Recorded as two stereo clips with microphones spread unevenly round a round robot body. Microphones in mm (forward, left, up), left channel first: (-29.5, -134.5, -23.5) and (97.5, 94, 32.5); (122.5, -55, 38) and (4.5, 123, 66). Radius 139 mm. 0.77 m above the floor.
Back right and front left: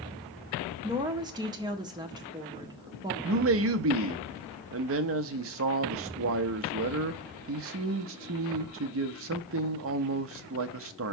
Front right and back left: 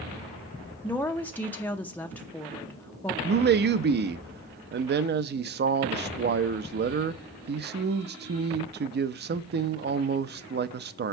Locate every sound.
0.8 s a woman speaking: 20° right, 0.7 m
3.2 s a man speaking: 95° left, 0.6 m